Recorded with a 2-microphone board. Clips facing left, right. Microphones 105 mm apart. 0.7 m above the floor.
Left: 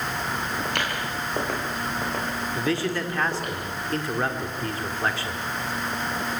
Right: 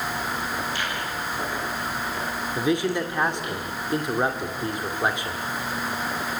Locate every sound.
0.7 s footsteps: 65° left (ahead or behind), 8.5 m; by 3.6 s 50° left (ahead or behind), 9.5 m
2.6 s a man speaking: 15° right (ahead or behind), 1.8 m